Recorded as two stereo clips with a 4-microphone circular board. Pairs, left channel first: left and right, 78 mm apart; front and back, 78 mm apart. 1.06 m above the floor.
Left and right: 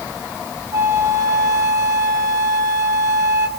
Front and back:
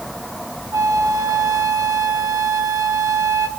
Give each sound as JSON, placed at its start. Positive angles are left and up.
{"t": 0.7, "sound": "a flute", "azimuth_deg": -135, "distance_m": 1.7}